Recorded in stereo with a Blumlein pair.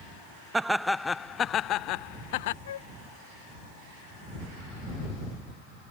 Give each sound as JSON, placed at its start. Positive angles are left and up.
{"t": 0.5, "sound": "laughter", "azimuth_deg": -10}
{"t": 2.6, "sound": "a flute", "azimuth_deg": 65}